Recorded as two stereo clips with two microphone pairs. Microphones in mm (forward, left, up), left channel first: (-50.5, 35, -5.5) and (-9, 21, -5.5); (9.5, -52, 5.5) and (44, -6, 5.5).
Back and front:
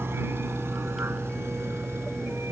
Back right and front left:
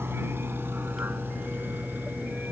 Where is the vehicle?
10° left; by 2.5 s straight ahead.